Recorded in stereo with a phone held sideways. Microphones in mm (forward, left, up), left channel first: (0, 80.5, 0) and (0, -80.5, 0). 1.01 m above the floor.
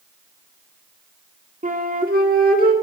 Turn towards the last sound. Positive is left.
turn(degrees=-65)  # may be behind; listen again after turning